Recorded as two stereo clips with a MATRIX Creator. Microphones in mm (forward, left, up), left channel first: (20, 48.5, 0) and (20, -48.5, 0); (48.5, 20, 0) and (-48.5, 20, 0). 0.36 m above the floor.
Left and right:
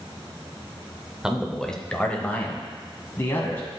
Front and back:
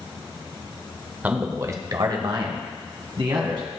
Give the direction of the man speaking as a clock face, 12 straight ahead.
5 o'clock.